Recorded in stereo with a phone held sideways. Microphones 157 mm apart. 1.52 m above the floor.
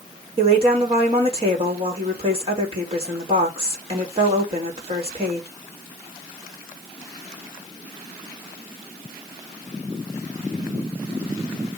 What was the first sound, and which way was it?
A woman speaking, 40° right (ahead or behind).